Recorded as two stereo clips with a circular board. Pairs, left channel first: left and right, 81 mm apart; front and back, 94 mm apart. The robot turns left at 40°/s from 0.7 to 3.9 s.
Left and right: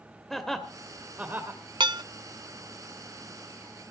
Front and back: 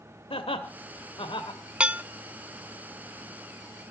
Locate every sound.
0.3 s laughter: 5° left, 2 m; by 1.6 s 35° right, 2 m
1.8 s dishes clattering: 100° right, 0.6 m; by 2.0 s 110° right, 0.6 m